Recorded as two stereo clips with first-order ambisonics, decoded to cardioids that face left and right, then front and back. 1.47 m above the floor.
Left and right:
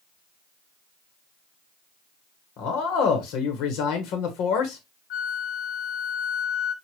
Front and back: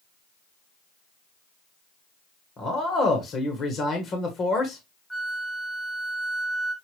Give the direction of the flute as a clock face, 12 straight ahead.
9 o'clock.